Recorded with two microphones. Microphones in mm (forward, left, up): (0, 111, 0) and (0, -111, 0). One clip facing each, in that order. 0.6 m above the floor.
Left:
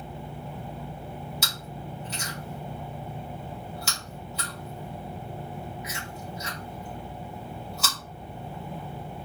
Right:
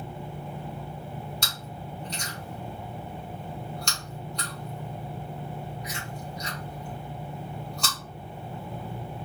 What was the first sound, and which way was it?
Chewing, 5° left (ahead or behind).